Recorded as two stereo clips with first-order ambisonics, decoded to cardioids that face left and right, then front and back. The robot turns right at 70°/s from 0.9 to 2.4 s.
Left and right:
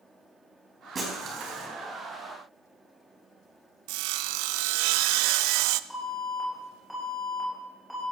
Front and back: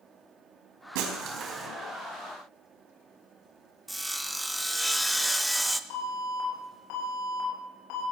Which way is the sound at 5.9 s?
Straight ahead.